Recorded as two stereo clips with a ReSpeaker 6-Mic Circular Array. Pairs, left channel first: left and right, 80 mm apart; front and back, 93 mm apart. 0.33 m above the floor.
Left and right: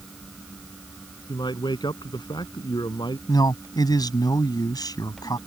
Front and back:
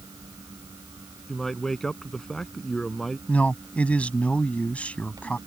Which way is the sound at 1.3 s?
85° left.